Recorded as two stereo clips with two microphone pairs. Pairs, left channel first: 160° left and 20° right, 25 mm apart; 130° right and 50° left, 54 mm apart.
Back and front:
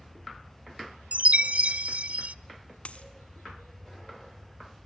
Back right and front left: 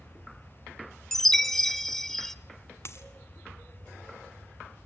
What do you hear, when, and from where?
1.1 s a chime: 45° right, 0.6 m
2.9 s a dropped coin: 165° right, 1.9 m